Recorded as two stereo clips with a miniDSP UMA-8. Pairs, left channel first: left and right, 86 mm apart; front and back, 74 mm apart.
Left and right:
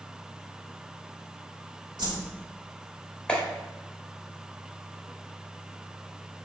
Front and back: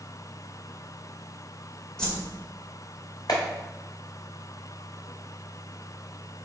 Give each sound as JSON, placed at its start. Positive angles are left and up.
{"t": 2.0, "sound": "a whoosh", "azimuth_deg": -75, "distance_m": 1.9}
{"t": 3.3, "sound": "a clap", "azimuth_deg": 15, "distance_m": 1.8}